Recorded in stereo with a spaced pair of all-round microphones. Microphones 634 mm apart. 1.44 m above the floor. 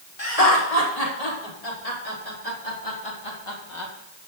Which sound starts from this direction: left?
Laughter, at 0.2 s.